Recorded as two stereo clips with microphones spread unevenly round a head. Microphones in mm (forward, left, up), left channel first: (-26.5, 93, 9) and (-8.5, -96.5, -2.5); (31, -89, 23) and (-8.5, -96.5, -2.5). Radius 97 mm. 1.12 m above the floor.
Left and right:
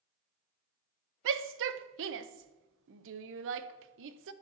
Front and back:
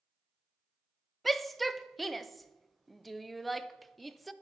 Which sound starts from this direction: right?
A shout, at 1.2 s.